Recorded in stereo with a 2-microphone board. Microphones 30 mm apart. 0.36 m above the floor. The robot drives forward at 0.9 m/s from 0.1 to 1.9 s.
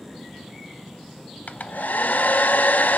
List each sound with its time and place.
1.5 s a hair dryer: 60° left (ahead or behind), 0.8 m; by 3.0 s 70° left (ahead or behind), 0.7 m